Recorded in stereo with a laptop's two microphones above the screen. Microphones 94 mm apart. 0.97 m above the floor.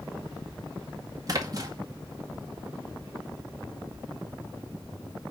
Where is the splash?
40° right (ahead or behind), 2 m.